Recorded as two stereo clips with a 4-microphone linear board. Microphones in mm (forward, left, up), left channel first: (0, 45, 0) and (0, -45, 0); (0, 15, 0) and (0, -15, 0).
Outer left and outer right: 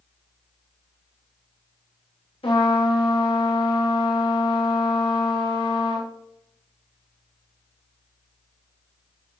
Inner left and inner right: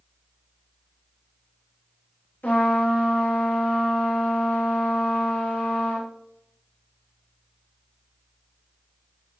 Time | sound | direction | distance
2.4 | a trumpet | 80° left | 5.5 m